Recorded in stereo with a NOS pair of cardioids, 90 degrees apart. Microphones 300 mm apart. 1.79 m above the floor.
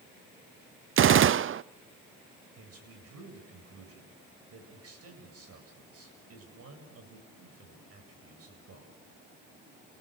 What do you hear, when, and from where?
1.0 s a gunshot: 45° right, 0.7 m
2.6 s a man speaking: 50° right, 8.5 m